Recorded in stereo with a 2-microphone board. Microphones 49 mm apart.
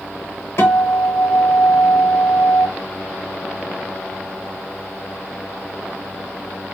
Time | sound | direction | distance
0.6 | a guitar | 65° left (ahead or behind) | 1.1 m